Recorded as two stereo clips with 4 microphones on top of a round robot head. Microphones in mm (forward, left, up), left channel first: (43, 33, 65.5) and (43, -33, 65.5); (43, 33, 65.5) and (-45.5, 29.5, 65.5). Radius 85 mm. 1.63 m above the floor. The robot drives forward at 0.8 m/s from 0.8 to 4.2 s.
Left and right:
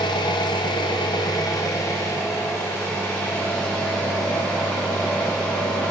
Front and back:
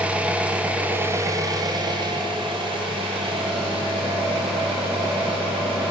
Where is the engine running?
105° left, 0.9 m; by 5.9 s 165° left, 3 m.